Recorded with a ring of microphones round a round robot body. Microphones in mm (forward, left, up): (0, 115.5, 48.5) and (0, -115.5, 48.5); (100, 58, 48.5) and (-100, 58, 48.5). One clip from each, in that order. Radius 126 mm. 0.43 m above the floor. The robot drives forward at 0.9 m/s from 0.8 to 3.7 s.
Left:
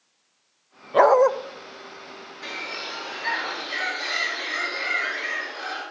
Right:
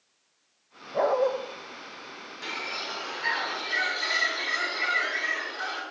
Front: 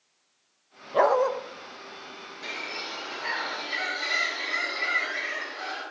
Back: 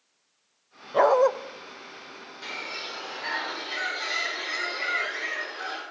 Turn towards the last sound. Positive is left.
turn(degrees=-135)